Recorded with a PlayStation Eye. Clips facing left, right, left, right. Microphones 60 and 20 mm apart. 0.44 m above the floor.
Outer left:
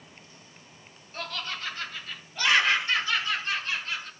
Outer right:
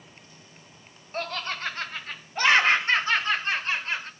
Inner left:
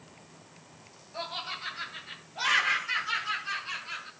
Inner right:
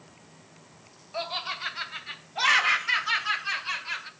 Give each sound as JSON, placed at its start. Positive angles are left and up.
{"t": 1.1, "sound": "laughter", "side_deg": -40, "distance_m": 3.0}